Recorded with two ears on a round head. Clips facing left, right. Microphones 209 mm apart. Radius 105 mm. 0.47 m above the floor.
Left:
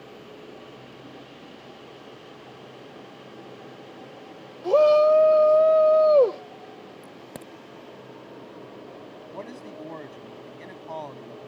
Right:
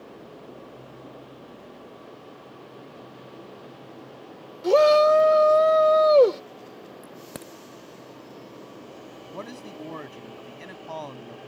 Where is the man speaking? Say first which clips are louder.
Right 1 dB; 10° right (ahead or behind).